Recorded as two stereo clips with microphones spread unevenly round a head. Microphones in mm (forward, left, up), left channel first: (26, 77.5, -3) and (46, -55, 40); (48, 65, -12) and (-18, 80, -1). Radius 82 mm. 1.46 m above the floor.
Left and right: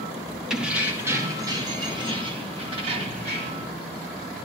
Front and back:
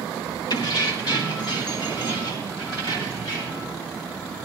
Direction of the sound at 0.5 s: 5° right.